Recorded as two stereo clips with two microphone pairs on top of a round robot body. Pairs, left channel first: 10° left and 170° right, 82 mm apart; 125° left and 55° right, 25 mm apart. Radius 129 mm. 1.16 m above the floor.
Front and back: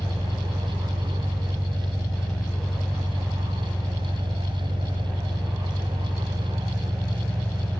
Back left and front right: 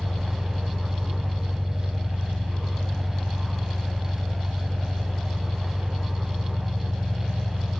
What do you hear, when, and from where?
0.0 s an engine running: 80° right, 3.5 m